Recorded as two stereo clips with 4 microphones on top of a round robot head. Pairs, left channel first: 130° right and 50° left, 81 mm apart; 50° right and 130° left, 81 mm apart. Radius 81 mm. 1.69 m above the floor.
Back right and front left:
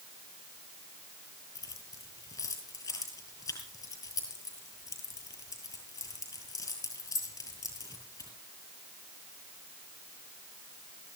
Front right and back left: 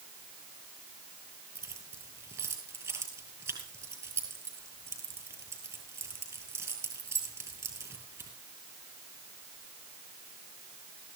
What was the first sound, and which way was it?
Keys jangling, 175° right.